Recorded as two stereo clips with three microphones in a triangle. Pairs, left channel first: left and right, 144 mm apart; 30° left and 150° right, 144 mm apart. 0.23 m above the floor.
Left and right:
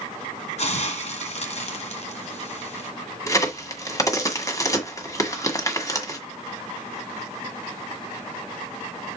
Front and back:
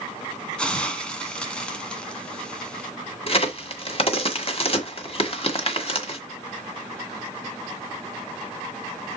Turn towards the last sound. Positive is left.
turn(degrees=35)